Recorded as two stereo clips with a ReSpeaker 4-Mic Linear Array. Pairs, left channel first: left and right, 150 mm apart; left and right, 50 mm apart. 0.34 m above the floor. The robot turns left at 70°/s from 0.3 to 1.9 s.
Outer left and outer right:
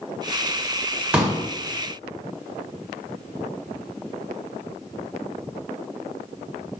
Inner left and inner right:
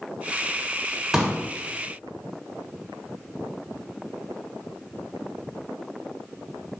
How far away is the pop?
About 1.5 m.